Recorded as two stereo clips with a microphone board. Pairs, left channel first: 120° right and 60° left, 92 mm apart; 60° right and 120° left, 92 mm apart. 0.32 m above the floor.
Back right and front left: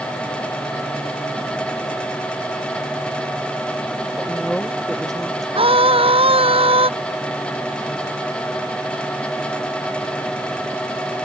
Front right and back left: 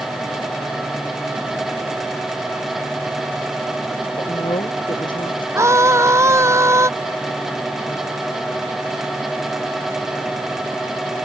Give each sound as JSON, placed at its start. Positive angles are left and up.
{"t": 4.2, "sound": "a woman speaking", "azimuth_deg": -35}
{"t": 5.5, "sound": "a scream", "azimuth_deg": 60}